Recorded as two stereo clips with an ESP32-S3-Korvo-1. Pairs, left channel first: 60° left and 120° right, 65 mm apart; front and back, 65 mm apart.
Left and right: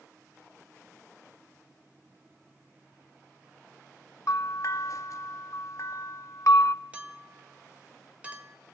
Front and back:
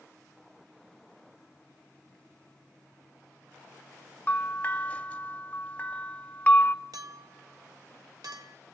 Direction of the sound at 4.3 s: 60° left.